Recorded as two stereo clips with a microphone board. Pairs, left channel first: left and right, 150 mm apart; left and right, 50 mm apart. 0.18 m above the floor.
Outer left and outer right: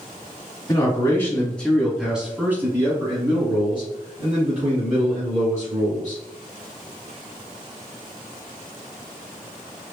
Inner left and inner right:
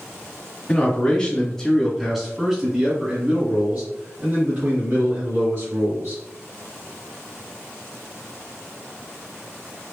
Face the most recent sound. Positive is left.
turn(degrees=-60)  # may be behind; listen again after turning